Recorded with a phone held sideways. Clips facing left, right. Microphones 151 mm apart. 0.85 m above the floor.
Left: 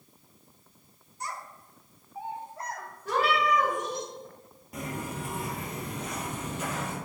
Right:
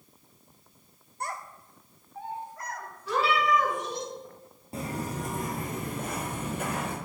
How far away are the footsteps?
About 1.2 m.